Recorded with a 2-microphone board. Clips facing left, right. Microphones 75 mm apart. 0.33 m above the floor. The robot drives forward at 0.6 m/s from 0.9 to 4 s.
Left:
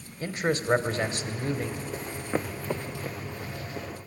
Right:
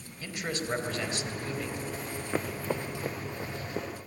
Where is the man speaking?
45° left (ahead or behind), 1.7 m.